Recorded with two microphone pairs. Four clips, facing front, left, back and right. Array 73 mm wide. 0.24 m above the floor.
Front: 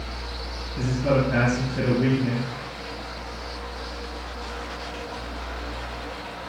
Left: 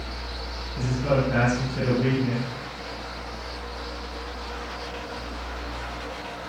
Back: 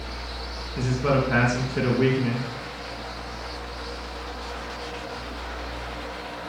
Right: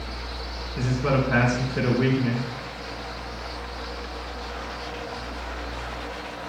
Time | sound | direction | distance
0.8 | a man speaking | 130° right | 3 m